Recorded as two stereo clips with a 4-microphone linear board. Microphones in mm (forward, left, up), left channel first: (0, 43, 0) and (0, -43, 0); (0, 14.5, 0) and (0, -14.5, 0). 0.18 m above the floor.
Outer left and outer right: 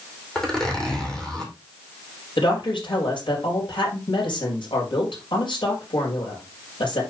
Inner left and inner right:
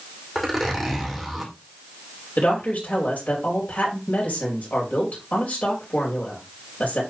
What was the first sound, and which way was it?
A zipper, 5° left (ahead or behind).